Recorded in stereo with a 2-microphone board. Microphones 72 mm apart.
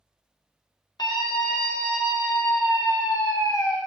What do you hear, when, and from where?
1.0 s a scream: 75° left (ahead or behind), 2 m; by 3.8 s 65° left (ahead or behind), 3 m